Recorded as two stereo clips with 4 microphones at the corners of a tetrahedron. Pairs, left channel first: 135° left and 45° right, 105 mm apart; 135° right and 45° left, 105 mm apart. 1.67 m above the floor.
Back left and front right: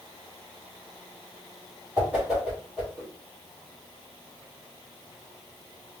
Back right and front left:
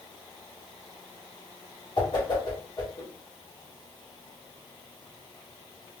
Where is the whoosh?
120° right, 1.8 m.